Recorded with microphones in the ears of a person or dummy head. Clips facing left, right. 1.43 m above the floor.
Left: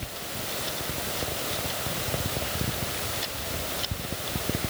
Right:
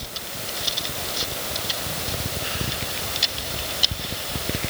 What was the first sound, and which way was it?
Only background noise.